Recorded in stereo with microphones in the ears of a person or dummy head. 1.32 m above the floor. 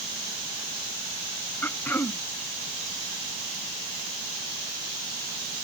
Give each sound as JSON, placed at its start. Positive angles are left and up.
{"t": 1.6, "sound": "throat clearing", "side_deg": 10}